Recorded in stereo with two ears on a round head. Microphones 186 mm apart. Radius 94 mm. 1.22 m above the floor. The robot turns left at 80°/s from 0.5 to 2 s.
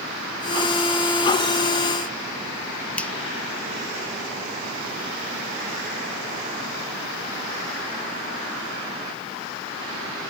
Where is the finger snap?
5° left (ahead or behind).